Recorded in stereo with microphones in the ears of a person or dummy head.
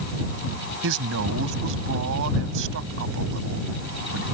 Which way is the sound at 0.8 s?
70° right (ahead or behind).